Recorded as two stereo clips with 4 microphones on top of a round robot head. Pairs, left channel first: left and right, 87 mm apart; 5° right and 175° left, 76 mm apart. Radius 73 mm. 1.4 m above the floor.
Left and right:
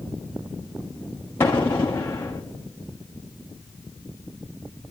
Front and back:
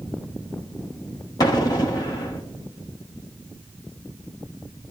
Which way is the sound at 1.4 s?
20° left.